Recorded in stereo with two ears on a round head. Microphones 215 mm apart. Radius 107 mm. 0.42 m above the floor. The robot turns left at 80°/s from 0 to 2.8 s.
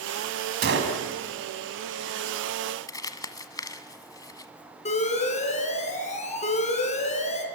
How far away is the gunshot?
About 3 m.